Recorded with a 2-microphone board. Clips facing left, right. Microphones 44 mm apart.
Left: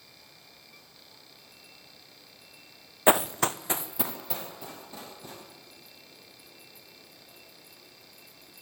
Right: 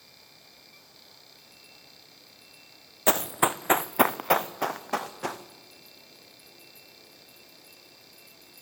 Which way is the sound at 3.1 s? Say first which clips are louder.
Left 1 dB; 15° left (ahead or behind).